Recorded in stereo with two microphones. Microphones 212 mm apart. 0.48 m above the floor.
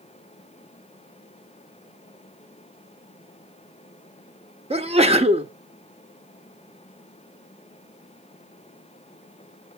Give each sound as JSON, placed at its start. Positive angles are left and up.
{"t": 4.7, "sound": "a sneeze", "side_deg": -30, "distance_m": 0.9}